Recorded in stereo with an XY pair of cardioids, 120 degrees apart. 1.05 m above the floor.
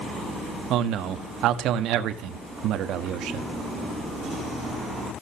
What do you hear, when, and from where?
0.7 s a man speaking: 70° right, 1.4 m